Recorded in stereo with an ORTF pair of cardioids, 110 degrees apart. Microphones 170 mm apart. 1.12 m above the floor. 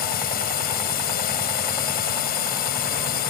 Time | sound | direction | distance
0.0 | a drone | 65° left | ?